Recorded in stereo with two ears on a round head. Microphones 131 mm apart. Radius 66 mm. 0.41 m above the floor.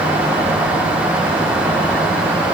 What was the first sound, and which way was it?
Only background noise.